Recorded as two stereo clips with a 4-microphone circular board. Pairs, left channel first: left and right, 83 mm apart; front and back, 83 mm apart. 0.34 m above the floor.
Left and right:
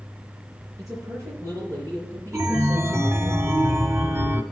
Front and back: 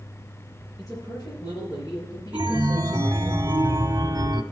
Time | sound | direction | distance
0.8 | a man speaking | 45° right | 6.5 m
2.3 | a chime | 145° right | 0.7 m